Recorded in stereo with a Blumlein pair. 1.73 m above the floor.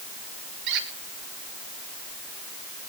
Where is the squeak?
40° right, 2.5 m.